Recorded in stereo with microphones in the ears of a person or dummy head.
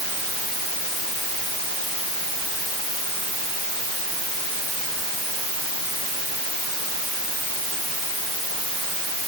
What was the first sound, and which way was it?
Only background noise.